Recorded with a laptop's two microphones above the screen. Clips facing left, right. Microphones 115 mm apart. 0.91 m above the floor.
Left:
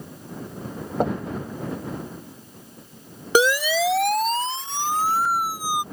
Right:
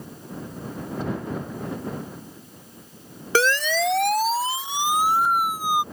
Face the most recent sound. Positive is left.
turn(degrees=-25)  # may be behind; listen again after turning